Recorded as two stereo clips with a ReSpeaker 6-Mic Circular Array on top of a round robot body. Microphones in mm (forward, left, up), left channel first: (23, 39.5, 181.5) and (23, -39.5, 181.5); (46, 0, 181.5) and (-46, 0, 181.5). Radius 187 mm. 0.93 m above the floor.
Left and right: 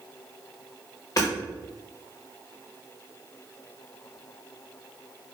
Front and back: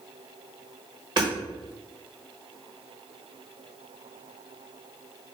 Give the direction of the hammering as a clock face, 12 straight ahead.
7 o'clock.